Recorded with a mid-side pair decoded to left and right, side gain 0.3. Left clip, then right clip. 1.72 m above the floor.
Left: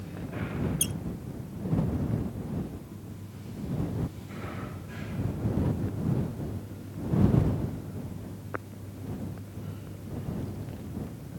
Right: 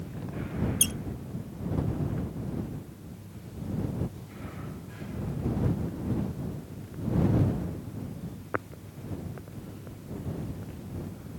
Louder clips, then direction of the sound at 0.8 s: Right 7 dB; 55° right.